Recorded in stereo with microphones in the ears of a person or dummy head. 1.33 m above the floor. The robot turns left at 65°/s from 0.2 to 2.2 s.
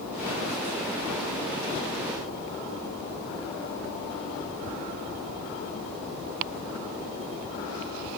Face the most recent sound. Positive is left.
No sound to turn to.